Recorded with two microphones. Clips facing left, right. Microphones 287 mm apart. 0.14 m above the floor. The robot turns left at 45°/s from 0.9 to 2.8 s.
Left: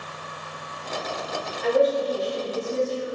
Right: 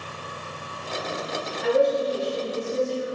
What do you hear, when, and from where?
1.6 s a woman speaking: 125° left, 1.6 m; by 3.0 s 75° left, 1.6 m